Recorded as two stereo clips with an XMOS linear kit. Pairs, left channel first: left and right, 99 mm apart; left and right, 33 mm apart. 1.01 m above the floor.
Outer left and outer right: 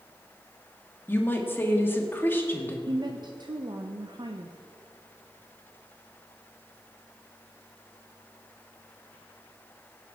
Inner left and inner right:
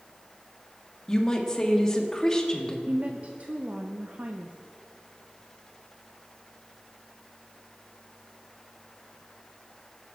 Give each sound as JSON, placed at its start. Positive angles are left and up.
{"t": 1.1, "sound": "a woman speaking", "side_deg": 20, "distance_m": 1.5}
{"t": 2.9, "sound": "a woman speaking", "side_deg": -50, "distance_m": 0.6}